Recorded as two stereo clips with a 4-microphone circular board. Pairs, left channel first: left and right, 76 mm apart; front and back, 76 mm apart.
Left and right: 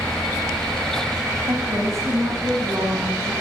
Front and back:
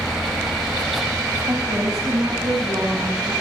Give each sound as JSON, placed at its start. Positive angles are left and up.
{"t": 1.5, "sound": "a woman speaking", "azimuth_deg": -130, "distance_m": 5.0}